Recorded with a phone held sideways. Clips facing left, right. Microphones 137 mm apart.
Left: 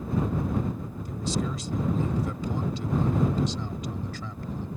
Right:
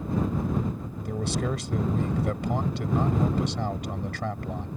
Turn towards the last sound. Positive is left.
turn(degrees=-80)